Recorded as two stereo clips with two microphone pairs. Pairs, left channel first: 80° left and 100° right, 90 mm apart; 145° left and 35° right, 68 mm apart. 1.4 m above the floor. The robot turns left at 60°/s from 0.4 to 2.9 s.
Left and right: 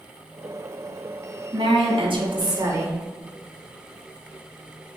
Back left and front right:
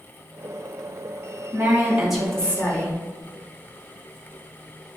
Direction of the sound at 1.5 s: 80° right.